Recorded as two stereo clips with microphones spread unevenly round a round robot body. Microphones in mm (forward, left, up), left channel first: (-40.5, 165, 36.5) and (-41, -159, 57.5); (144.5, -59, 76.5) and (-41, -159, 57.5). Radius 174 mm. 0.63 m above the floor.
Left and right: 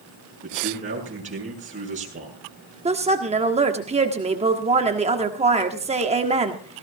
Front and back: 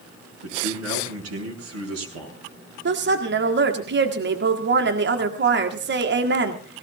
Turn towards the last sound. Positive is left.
turn(degrees=-160)